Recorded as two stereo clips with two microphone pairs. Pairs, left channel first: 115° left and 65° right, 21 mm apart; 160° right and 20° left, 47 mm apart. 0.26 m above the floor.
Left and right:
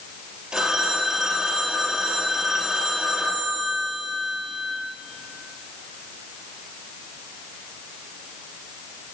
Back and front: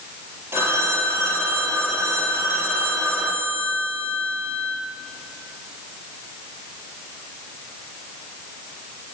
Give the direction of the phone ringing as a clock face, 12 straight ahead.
12 o'clock.